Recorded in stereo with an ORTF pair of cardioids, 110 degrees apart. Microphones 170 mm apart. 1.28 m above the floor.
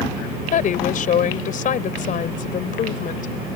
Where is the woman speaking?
55° left.